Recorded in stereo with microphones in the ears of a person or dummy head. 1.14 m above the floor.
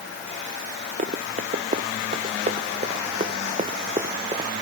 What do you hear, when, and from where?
1.0 s running footsteps: 40° right (ahead or behind); by 4.5 s 25° right (ahead or behind)